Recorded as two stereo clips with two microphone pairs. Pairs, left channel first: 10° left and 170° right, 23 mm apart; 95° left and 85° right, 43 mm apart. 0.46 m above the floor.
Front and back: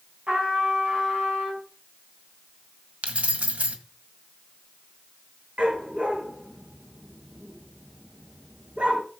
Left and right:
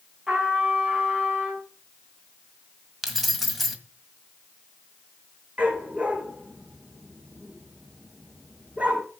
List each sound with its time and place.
0.3 s a trumpet: 150° right, 4.5 m
3.0 s keys jangling: 175° right, 1.7 m
5.6 s a dog barking: 145° right, 4 m